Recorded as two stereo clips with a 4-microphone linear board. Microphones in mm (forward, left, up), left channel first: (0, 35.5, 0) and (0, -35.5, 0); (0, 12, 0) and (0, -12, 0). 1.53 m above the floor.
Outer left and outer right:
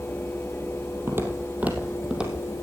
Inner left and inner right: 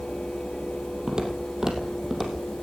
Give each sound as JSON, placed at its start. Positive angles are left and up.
{"t": 1.1, "sound": "footsteps", "side_deg": -35, "distance_m": 3.0}